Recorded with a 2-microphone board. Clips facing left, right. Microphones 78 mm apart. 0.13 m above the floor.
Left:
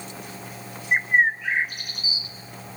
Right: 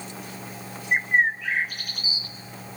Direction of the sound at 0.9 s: 20° left (ahead or behind).